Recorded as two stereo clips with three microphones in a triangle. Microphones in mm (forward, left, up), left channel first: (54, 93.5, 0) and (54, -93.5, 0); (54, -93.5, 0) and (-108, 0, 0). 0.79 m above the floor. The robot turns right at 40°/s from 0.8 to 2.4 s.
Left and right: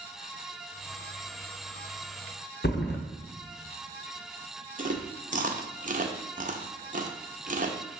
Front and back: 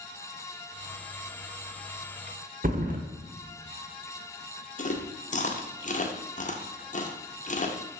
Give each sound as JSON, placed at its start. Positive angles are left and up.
{"t": 2.6, "sound": "a thud", "azimuth_deg": 110, "distance_m": 0.9}
{"t": 4.8, "sound": "chewing", "azimuth_deg": -65, "distance_m": 0.7}